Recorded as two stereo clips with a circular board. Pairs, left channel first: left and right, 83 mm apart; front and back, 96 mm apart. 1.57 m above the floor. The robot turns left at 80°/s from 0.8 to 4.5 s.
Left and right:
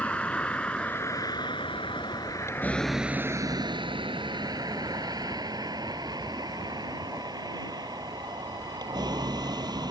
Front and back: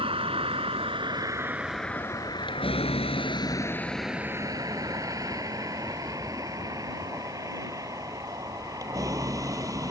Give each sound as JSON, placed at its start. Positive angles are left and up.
{"t": 0.0, "sound": "a vehicle", "azimuth_deg": 165}